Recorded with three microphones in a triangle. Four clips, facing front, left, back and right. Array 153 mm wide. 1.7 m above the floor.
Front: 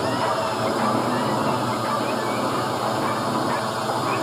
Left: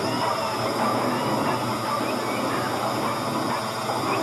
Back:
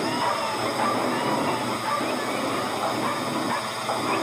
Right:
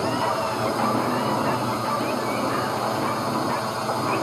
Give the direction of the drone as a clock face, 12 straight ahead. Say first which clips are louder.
Right 1 dB, front 3 dB; 1 o'clock.